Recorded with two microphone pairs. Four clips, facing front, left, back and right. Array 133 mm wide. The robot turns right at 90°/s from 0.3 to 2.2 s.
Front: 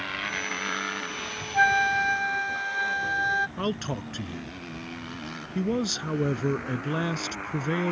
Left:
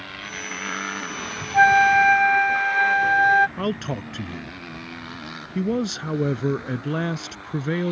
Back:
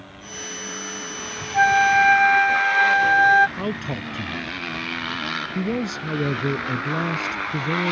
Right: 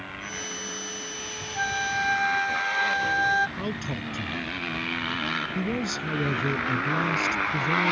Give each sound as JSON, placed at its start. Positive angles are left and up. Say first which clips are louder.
{"t": 0.0, "sound": "a motorcycle", "louder": "left 1 dB, front 5 dB", "azimuth_deg": 5}
{"t": 1.5, "sound": "a flute", "louder": "left 14 dB, back 6 dB", "azimuth_deg": 95}
{"t": 3.6, "sound": "a man speaking", "louder": "left 5 dB, back 2 dB", "azimuth_deg": 70}